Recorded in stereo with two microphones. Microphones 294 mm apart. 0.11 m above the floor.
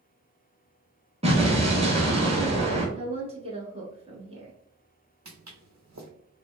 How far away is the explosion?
About 0.9 m.